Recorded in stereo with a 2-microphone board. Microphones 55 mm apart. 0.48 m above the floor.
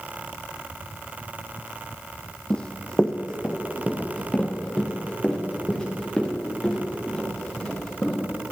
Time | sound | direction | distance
2.5 | running footsteps | 15° left (ahead or behind) | 0.9 m